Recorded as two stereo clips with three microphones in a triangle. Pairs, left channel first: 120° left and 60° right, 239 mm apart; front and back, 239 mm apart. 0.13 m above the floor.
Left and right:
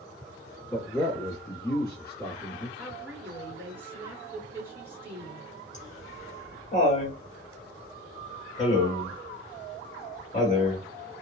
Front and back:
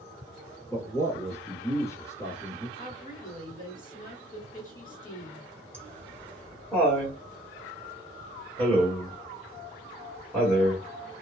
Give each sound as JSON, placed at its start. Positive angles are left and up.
{"t": 0.7, "sound": "a man speaking", "azimuth_deg": 70, "distance_m": 1.4}
{"t": 2.8, "sound": "a woman speaking", "azimuth_deg": 15, "distance_m": 2.0}
{"t": 5.7, "sound": "laughter", "azimuth_deg": 80, "distance_m": 1.6}